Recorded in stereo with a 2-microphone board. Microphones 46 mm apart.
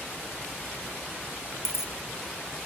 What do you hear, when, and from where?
1.6 s a dropped coin: 65° left (ahead or behind)